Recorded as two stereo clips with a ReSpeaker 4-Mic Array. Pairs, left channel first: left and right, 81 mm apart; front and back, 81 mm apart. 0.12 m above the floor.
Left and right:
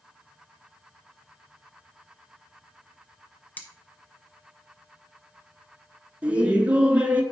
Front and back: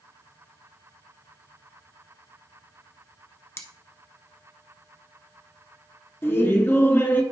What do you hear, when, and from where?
3.6 s cutlery clinking: 35° left, 1.1 m
6.2 s laughter: 30° right, 1.2 m